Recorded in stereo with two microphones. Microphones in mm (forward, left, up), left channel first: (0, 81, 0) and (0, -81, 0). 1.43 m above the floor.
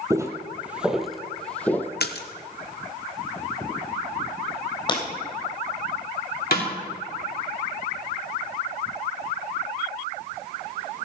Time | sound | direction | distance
0.1 | footsteps | 20° right (ahead or behind) | 1.5 m
2.0 | a splash | 80° left | 1.1 m
4.9 | breaking glass | 30° left (ahead or behind) | 3 m
6.5 | a snare drum | 70° left (ahead or behind) | 3.5 m